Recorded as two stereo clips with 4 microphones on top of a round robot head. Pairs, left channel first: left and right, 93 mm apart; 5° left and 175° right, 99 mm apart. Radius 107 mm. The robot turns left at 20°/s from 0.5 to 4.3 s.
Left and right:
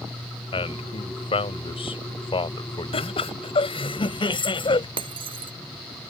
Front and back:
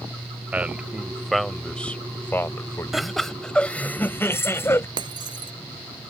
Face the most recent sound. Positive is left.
turn(degrees=-125)